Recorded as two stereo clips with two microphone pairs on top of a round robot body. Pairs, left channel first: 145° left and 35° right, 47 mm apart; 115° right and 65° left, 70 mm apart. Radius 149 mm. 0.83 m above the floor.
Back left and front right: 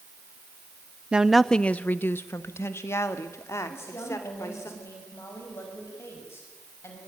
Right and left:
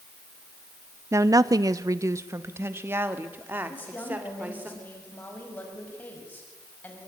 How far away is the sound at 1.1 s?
About 0.8 m.